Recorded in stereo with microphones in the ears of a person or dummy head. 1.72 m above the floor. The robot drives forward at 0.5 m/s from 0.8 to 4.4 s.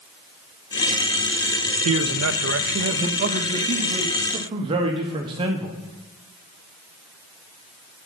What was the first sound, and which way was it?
A man speaking, 85° right.